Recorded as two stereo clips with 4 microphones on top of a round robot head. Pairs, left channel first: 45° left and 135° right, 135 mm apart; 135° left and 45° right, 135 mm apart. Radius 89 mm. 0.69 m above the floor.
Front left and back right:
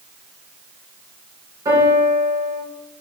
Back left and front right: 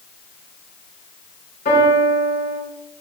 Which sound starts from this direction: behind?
A piano, at 1.6 s.